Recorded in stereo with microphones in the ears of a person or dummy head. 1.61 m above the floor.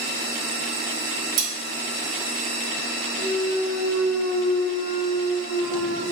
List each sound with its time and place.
1.4 s cutlery clinking: 50° right (ahead or behind), 1.4 m
3.2 s a clunk: 55° left (ahead or behind), 0.8 m